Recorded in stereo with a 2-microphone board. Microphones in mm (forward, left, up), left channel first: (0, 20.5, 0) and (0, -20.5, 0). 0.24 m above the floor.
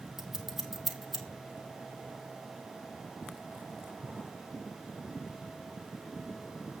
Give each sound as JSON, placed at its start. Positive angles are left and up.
{"t": 0.2, "sound": "scissors", "side_deg": -5, "distance_m": 2.0}